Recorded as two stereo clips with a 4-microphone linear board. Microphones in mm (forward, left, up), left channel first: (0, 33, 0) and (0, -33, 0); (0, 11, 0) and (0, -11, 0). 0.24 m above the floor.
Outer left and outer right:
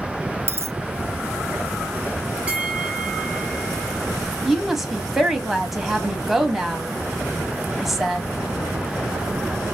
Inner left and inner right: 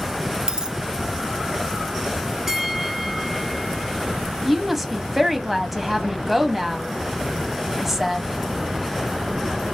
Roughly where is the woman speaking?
Centre.